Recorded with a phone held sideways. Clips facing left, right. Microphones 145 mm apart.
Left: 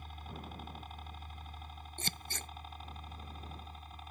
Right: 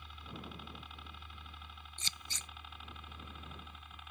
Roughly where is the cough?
No cough in this recording.